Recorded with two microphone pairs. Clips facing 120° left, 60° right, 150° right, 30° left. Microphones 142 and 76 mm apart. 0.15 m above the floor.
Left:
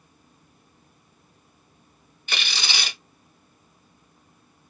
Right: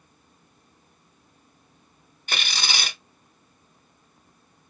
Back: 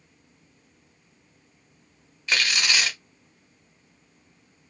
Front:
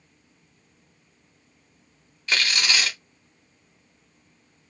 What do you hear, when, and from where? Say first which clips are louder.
2.3 s tearing paper: right 1 dB, even; 65° right, 1.3 m